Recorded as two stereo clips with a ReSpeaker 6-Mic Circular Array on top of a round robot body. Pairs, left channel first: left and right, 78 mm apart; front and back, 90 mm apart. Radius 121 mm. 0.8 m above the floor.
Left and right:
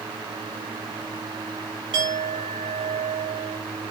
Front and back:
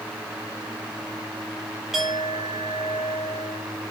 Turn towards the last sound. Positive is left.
turn(degrees=-90)